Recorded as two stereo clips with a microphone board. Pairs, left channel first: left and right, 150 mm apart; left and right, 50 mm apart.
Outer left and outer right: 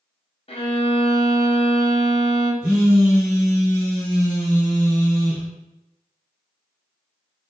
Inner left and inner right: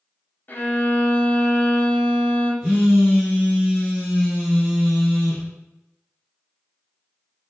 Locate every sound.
0.5 s a violin: 40° left (ahead or behind), 0.7 m
2.6 s a phone buzzing: 15° right (ahead or behind), 1.7 m